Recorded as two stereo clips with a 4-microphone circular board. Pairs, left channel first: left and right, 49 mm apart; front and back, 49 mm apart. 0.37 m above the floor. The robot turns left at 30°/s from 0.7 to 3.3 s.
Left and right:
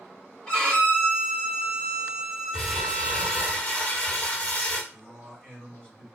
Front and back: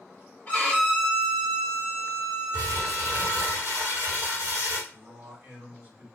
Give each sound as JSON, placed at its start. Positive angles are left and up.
{"t": 0.5, "sound": "a violin", "azimuth_deg": 35, "distance_m": 1.5}
{"t": 2.5, "sound": "crumpling", "azimuth_deg": 170, "distance_m": 1.0}
{"t": 4.9, "sound": "a man speaking", "azimuth_deg": 150, "distance_m": 1.9}